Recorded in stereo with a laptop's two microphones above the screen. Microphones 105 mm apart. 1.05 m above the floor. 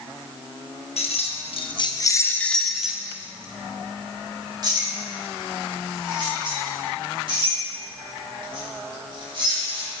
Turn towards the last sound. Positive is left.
turn(degrees=-55)  # may be behind; listen again after turning